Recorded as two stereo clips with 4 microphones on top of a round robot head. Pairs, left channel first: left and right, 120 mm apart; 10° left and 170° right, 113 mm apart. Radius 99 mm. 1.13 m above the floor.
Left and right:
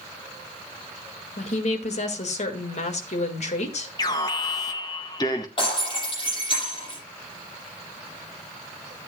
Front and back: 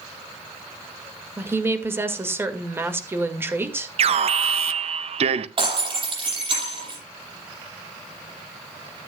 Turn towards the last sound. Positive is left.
turn(degrees=150)